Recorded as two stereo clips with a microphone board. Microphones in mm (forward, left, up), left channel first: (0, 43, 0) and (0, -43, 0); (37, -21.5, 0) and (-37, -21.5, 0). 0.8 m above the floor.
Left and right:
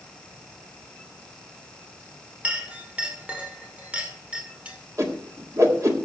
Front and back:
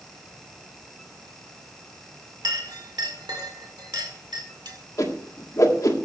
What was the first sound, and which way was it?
A clink, 165° right.